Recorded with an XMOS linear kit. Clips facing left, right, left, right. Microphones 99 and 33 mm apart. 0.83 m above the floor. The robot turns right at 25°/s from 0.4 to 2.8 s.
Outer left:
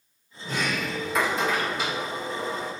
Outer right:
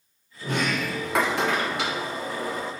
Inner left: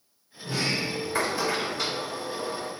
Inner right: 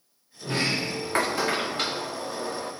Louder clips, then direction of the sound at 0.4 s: Outer right 2 dB, inner right 1 dB; 120° right.